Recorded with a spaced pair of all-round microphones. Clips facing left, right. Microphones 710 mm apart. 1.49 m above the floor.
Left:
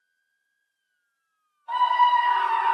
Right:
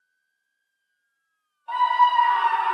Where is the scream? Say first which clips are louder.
Right 1 dB; 55° right (ahead or behind), 1.8 m; by 2.8 s 5° right (ahead or behind), 0.6 m.